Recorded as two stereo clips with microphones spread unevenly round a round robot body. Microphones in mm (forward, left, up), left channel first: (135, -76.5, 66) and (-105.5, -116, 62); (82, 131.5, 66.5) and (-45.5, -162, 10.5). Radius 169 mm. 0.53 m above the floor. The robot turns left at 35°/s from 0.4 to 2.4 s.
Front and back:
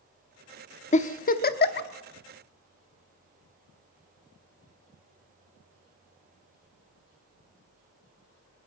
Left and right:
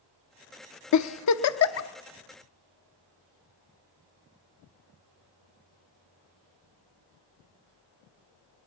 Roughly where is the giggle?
Ahead left.